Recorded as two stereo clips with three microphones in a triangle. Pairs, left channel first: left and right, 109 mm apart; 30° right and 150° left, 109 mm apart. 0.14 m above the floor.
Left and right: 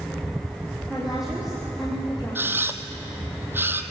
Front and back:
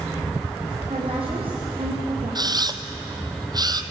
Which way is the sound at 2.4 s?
160° right.